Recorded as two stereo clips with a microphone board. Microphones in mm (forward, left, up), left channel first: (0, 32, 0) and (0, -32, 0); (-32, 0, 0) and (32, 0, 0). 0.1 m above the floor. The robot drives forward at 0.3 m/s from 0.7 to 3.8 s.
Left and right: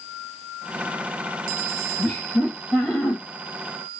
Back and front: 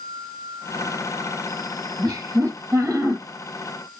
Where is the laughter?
30° left, 2 m; by 3.2 s 35° left, 1.8 m.